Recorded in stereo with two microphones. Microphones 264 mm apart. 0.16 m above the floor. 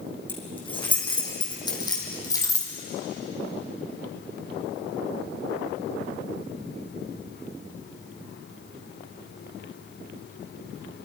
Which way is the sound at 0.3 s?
20° left (ahead or behind).